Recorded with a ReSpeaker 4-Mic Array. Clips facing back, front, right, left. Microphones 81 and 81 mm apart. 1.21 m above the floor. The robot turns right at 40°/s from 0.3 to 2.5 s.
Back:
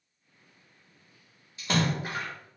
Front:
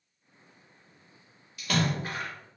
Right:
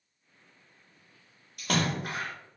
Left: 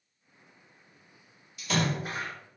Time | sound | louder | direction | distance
1.6 | a splash | back 1 dB, even | 120° right | 0.8 m